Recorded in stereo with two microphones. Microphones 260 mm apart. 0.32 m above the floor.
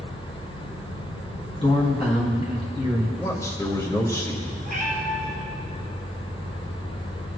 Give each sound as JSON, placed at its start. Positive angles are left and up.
{"t": 1.6, "sound": "a man speaking", "side_deg": 25, "distance_m": 2.5}
{"t": 3.2, "sound": "a man speaking", "side_deg": 15, "distance_m": 1.5}
{"t": 4.7, "sound": "a cat meowing", "side_deg": -30, "distance_m": 2.5}